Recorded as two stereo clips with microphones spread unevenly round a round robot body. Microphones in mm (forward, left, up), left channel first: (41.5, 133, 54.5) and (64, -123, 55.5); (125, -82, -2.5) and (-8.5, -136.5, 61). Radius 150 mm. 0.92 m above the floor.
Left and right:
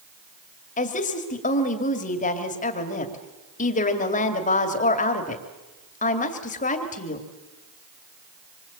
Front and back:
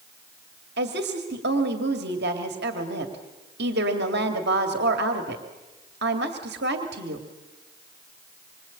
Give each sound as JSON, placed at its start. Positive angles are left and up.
{"t": 0.8, "sound": "a woman speaking", "azimuth_deg": 160, "distance_m": 2.0}